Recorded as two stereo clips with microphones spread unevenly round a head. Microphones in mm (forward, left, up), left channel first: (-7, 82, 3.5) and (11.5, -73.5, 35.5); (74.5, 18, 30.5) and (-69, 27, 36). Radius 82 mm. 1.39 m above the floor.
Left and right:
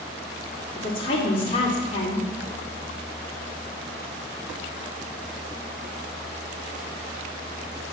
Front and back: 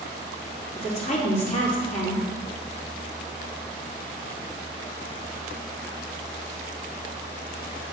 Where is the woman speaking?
35° left, 2.5 m.